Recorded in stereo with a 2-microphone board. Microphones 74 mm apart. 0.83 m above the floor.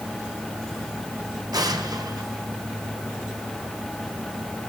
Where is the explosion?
60° right (ahead or behind), 2 m.